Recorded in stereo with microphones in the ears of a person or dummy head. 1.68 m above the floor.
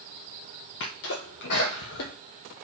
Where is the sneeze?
55° left (ahead or behind), 0.6 m.